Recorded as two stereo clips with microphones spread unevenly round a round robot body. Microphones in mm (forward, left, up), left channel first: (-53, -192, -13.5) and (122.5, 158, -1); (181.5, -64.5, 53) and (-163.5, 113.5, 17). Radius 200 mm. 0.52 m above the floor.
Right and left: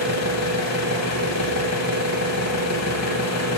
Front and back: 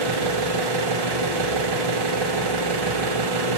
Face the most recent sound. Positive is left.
turn(degrees=-170)